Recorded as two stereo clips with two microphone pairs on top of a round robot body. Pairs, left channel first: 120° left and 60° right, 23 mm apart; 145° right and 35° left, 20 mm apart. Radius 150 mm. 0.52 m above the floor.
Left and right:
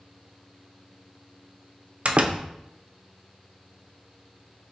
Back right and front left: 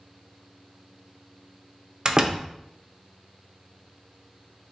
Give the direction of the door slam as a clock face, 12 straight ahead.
1 o'clock.